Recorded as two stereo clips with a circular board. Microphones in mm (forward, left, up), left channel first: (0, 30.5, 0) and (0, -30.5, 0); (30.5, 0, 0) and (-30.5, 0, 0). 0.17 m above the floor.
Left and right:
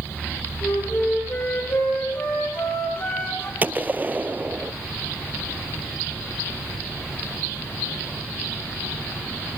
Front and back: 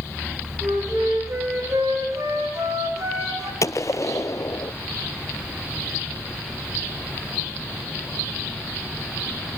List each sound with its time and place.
0.6 s a flute: 140° left, 5.5 m
3.6 s a gunshot: 30° right, 0.6 m